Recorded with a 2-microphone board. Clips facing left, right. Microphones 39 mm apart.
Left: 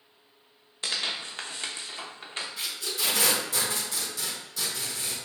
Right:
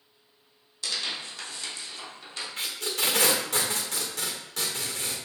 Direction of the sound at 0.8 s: 40° left (ahead or behind).